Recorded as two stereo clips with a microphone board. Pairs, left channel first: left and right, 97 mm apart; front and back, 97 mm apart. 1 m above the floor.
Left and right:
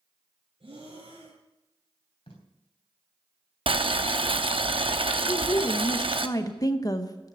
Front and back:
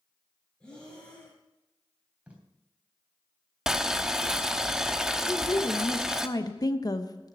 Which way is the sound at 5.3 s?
45° left.